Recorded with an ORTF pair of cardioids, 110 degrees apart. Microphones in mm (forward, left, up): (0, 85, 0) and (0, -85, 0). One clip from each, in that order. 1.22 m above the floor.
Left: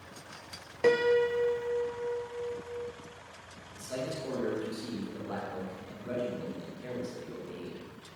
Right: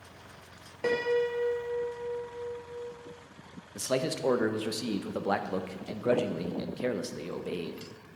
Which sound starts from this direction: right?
A man speaking, at 3.8 s.